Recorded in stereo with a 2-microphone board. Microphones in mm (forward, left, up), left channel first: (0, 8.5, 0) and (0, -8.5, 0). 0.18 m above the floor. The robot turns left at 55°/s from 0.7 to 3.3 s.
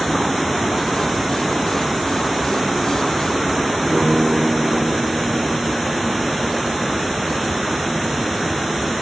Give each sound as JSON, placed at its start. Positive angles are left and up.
{"t": 3.9, "sound": "a guitar", "side_deg": -10, "distance_m": 7.5}